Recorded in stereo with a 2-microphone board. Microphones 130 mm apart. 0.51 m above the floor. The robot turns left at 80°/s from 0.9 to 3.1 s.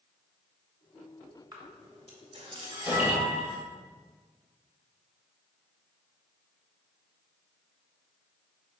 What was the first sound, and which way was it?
A camera shutter, 30° right (ahead or behind).